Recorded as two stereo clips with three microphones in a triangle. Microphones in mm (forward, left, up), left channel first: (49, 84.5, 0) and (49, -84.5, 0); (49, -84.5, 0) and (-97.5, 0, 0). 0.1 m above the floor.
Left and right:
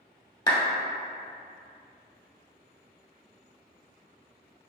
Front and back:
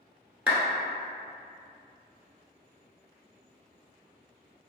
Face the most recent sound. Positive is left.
turn(degrees=80)